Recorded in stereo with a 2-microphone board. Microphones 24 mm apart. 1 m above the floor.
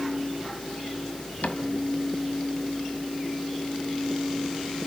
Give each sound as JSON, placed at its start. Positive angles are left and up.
{"t": 1.4, "sound": "a cupboard door", "side_deg": 70, "distance_m": 2.0}